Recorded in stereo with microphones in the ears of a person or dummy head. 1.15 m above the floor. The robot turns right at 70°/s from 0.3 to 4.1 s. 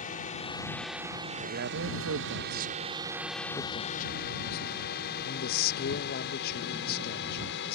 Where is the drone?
40° left (ahead or behind); by 7.8 s 60° left (ahead or behind).